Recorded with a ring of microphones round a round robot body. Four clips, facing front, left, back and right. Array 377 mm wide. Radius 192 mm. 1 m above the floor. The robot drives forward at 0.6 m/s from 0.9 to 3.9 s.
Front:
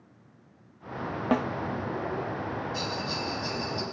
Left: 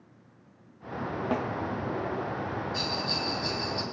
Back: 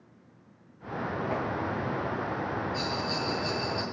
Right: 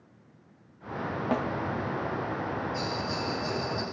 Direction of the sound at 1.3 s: Straight ahead.